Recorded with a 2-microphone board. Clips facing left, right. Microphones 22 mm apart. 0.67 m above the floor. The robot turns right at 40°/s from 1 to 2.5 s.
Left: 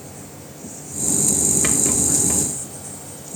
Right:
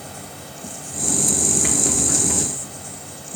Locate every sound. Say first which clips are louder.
0.0 s an insect: right 2 dB; 75° right, 1.9 m; by 3.4 s 15° right, 1.9 m
1.6 s a rattle: even; 40° left (ahead or behind), 1.7 m; by 2.5 s 10° left (ahead or behind), 1.7 m